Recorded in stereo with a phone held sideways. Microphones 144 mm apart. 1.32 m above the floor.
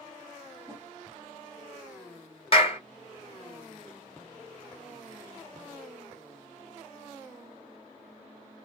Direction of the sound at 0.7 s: 20° right (ahead or behind).